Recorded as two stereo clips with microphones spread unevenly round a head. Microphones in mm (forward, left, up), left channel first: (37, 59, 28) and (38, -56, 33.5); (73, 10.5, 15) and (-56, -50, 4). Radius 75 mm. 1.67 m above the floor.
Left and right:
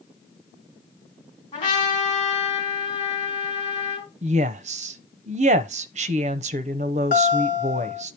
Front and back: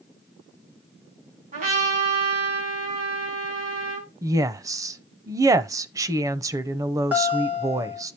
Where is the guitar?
125° left, 3 m.